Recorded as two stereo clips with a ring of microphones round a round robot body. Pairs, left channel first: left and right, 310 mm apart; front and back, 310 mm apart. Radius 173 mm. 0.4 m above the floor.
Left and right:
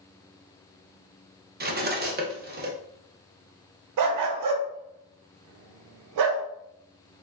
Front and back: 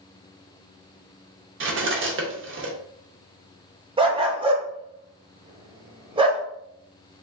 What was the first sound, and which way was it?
Cutlery clinking, 140° right.